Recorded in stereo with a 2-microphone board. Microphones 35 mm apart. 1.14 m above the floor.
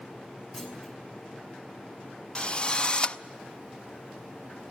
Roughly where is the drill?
Left.